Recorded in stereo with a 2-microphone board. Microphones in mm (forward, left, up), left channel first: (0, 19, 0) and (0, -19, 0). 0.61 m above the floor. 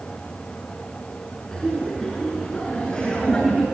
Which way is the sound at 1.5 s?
10° left (ahead or behind).